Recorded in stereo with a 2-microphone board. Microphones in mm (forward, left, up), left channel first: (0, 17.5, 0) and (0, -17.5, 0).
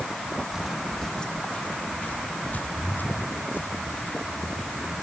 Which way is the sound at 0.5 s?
20° right (ahead or behind).